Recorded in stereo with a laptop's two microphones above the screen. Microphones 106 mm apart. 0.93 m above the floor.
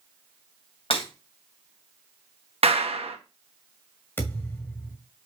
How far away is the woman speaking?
I don't hear a woman speaking.